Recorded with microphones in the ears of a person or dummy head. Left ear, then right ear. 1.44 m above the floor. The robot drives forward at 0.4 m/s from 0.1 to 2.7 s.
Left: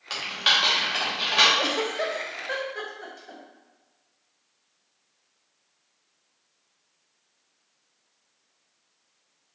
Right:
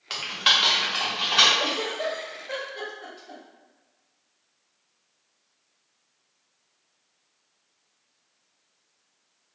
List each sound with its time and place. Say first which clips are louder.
0.1 s typing on a keyboard: right 1 dB; 5° right (ahead or behind), 0.6 m; by 1.5 s centre (ahead or behind), 1.2 m
1.6 s a giggle: left 1 dB; 70° left (ahead or behind), 0.5 m; by 3.4 s 40° left (ahead or behind), 0.8 m